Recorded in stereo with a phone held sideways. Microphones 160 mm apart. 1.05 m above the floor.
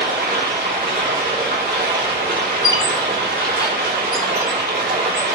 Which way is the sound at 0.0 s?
85° right.